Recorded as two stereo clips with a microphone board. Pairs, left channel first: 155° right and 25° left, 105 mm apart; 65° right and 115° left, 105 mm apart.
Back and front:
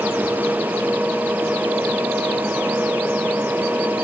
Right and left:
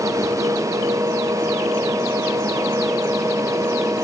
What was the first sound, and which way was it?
Only background noise.